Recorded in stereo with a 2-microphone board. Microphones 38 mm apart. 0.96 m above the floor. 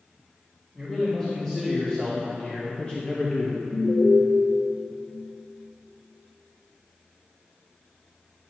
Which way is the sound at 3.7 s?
45° left (ahead or behind).